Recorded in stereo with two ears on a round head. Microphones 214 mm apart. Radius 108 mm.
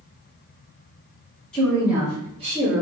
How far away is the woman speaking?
About 1.3 m.